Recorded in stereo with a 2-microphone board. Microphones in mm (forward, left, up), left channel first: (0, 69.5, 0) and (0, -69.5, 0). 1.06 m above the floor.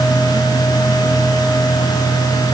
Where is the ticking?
I don't hear ticking.